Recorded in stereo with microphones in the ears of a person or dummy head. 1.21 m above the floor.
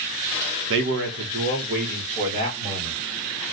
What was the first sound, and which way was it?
A man speaking, 75° right (ahead or behind).